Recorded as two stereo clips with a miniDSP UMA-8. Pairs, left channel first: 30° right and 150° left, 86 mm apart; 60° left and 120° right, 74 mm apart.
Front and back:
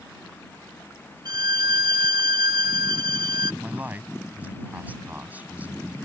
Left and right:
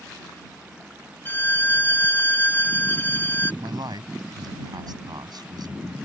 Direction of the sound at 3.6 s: 140° right.